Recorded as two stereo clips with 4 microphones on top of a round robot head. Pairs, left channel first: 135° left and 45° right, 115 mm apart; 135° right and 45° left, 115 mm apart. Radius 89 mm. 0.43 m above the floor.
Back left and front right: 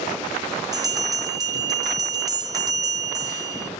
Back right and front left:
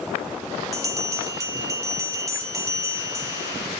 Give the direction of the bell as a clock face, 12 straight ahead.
12 o'clock.